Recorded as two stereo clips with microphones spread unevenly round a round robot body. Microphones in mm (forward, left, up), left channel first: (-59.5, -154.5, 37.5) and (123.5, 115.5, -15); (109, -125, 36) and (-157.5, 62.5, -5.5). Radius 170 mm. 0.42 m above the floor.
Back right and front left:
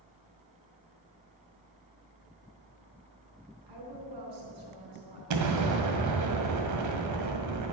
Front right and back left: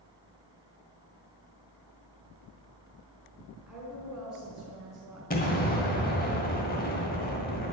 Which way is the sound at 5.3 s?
30° left.